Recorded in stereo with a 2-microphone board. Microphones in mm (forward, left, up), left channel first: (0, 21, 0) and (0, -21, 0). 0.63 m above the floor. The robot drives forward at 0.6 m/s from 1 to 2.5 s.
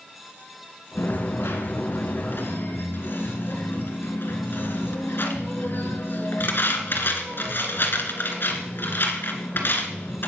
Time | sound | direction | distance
1.0 | a dropped coin | 80° left | 1.7 m